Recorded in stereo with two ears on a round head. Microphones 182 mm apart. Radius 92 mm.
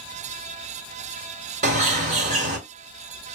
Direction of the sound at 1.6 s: 35° right (ahead or behind).